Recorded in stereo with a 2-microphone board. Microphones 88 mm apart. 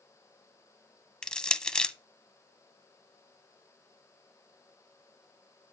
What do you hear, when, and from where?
1.2 s crushing: 10° left (ahead or behind), 0.6 m